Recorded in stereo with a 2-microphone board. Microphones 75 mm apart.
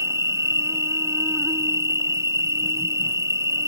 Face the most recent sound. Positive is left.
turn(degrees=-40)  # may be behind; listen again after turning